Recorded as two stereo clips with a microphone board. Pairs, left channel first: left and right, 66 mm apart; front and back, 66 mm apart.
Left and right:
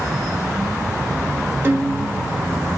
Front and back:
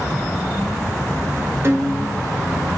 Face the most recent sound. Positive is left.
turn(degrees=-140)